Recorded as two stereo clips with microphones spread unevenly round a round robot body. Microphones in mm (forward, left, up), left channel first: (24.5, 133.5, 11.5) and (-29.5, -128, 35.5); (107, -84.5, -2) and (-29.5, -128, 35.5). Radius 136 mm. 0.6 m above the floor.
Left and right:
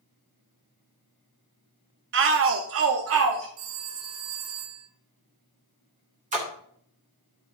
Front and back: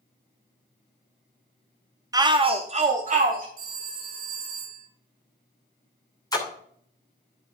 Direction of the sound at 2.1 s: 90° right.